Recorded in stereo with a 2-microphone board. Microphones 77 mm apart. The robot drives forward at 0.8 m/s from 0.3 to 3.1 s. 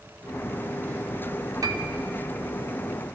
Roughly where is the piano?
Right.